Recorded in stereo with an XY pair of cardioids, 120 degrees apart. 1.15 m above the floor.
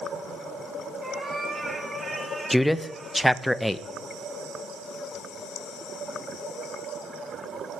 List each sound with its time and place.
1.0 s a cat meowing: 25° right, 3.5 m; by 3.4 s straight ahead, 2.5 m
2.5 s a man speaking: 5° left, 0.7 m